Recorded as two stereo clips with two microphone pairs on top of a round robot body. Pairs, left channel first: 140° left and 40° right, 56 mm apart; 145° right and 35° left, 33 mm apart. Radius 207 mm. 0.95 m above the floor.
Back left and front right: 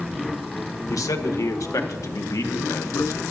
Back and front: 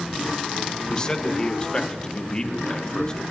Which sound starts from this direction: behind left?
A man speaking, at 0.9 s.